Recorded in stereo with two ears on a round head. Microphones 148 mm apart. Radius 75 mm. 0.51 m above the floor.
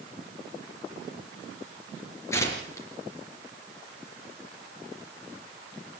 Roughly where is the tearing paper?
Centre.